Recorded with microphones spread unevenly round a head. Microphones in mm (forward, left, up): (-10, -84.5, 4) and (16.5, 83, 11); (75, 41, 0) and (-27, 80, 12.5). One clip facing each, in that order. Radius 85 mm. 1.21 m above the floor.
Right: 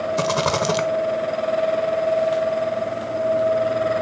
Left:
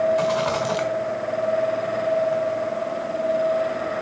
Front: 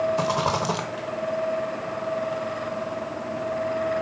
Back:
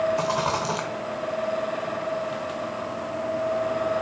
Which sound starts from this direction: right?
A rattle, at 0.2 s.